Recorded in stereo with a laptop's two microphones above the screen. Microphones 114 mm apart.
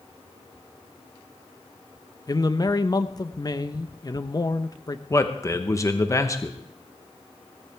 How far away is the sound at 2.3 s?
About 0.9 m.